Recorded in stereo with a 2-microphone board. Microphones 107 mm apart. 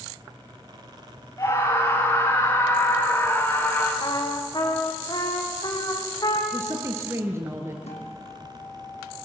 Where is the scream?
30° left (ahead or behind), 9.5 m; by 3.9 s 20° left (ahead or behind), 10.5 m.